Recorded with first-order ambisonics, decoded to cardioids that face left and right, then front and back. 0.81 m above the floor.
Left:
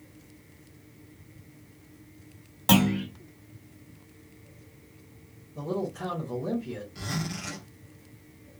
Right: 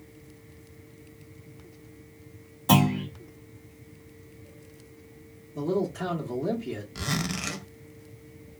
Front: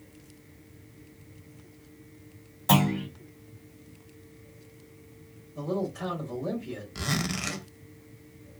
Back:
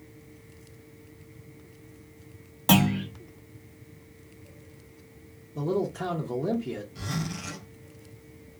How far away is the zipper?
About 0.5 m.